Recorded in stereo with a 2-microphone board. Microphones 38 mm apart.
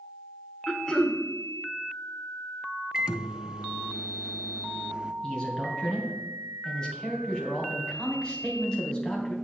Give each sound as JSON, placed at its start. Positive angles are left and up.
{"t": 0.7, "sound": "throat clearing", "side_deg": 25, "distance_m": 1.1}
{"t": 2.9, "sound": "a microwave", "side_deg": -15, "distance_m": 0.6}
{"t": 5.2, "sound": "a man speaking", "side_deg": 25, "distance_m": 3.0}